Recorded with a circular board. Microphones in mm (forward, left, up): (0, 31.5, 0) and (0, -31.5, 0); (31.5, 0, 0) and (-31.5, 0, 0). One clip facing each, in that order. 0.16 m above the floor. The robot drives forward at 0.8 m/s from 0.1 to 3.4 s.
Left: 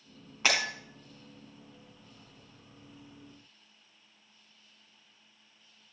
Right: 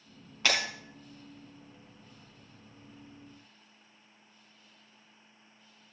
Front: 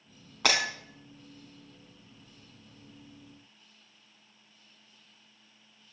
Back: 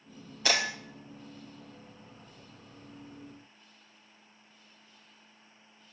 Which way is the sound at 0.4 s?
10° left.